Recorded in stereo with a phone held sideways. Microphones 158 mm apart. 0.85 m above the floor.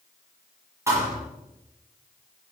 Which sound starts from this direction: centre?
A thud, at 0.9 s.